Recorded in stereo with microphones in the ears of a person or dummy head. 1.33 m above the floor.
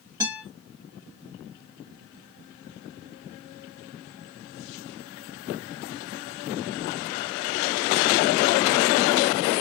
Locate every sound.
0.2 s a guitar: 15° right (ahead or behind), 1.5 m